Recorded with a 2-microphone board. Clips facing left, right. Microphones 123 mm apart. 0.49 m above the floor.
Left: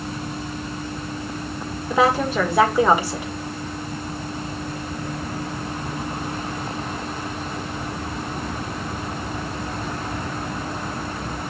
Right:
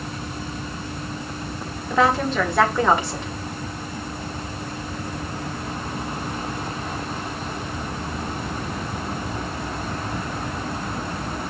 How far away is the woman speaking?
About 1.5 m.